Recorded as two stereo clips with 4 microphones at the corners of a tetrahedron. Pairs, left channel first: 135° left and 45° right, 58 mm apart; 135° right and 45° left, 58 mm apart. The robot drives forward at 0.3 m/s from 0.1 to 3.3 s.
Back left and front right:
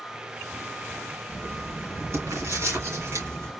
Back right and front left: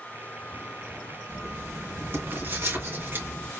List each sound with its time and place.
1.3 s writing: 5° right, 3.5 m